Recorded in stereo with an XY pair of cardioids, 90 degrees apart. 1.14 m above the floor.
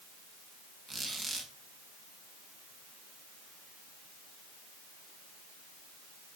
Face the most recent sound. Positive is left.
turn(degrees=-40)